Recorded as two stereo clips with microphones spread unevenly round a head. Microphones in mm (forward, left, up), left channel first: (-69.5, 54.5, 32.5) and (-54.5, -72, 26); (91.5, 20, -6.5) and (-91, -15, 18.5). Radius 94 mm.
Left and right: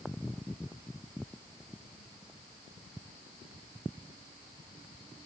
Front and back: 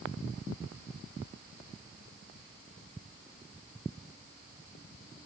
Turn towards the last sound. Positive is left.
No sound to turn to.